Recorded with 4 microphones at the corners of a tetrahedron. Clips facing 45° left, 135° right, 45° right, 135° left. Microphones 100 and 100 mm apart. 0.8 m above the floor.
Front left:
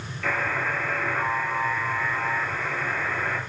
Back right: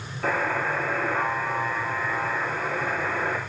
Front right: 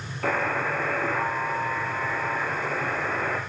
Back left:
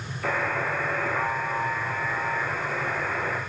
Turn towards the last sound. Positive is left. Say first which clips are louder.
# back right 2 dB, front right 1 dB
turn(degrees=-85)